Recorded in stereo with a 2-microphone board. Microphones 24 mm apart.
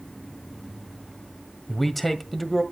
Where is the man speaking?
5° left (ahead or behind), 1.6 m.